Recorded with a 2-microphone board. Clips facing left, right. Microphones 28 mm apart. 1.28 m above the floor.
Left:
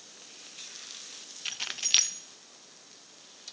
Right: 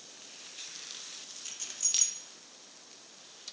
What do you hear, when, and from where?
1.4 s keys jangling: 55° left (ahead or behind), 0.6 m